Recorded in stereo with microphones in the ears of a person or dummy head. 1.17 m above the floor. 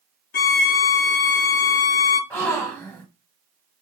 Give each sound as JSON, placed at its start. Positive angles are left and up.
{"t": 0.3, "sound": "a violin", "side_deg": 50, "distance_m": 0.5}
{"t": 2.3, "sound": "a gasp", "side_deg": 10, "distance_m": 0.7}